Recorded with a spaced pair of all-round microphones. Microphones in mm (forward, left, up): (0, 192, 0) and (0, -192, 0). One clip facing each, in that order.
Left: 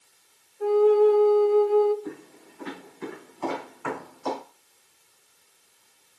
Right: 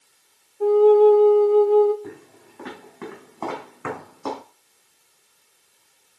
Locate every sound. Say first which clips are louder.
0.6 s a flute: right 5 dB; 45° right (ahead or behind), 0.7 m
2.0 s footsteps: left 1 dB; 65° right (ahead or behind), 4.5 m